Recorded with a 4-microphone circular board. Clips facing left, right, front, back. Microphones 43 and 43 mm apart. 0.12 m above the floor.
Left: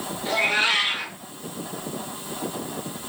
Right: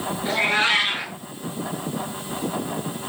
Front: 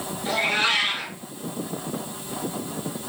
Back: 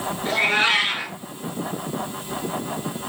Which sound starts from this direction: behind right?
A cat meowing, at 0.2 s.